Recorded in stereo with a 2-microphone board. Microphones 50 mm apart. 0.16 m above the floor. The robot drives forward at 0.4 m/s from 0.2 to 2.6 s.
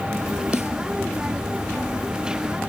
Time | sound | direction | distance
0.5 | a snare drum | 60° left (ahead or behind) | 1.3 m